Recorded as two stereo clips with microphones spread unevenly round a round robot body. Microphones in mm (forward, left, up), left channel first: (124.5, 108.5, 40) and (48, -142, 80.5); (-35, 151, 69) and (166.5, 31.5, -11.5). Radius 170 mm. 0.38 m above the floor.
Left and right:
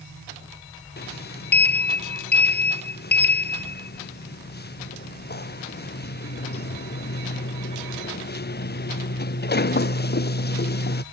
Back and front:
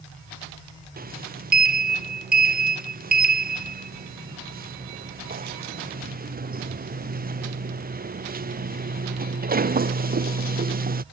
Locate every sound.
1.0 s a sliding door: 20° left